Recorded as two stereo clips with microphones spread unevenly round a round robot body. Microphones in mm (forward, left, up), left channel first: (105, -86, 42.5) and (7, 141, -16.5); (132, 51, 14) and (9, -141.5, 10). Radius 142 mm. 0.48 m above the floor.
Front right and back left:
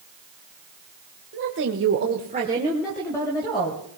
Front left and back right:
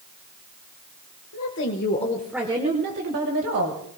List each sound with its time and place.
1.3 s a woman speaking: 90° left, 1.7 m; by 3.8 s 145° right, 2.5 m